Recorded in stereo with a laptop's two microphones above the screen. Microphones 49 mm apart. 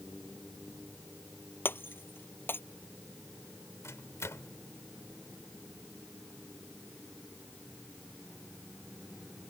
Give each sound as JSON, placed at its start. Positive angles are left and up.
{"t": 1.6, "sound": "breaking glass", "side_deg": 50}
{"t": 3.8, "sound": "a microwave", "side_deg": 80}